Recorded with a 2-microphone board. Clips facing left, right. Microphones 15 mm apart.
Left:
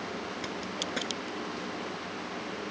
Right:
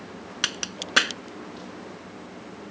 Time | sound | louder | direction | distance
0.4 | a crack | right 10 dB | 65° right (ahead or behind) | ?